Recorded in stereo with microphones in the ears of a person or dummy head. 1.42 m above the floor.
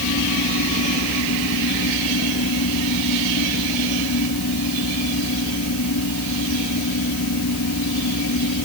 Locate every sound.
0.0 s a fan: 75° left (ahead or behind)